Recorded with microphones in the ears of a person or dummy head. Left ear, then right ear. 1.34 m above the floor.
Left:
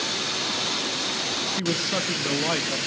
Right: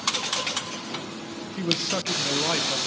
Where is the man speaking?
5° right (ahead or behind), 0.9 m.